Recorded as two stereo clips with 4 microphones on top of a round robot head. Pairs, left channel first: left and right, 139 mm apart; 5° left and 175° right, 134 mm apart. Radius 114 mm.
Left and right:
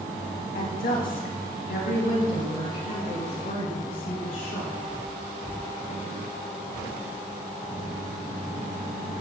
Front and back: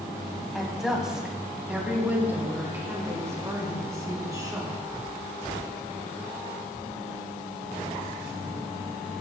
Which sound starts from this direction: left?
A woman speaking, at 0.6 s.